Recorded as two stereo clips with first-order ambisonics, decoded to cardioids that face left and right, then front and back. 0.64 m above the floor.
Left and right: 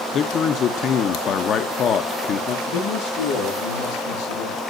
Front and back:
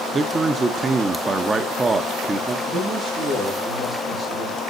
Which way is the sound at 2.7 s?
90° left.